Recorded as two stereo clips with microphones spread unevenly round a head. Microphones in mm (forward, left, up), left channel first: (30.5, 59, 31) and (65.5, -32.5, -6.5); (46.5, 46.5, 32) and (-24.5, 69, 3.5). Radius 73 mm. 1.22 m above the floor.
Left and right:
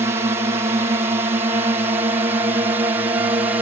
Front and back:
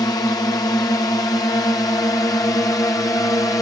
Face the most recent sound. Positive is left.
turn(degrees=-70)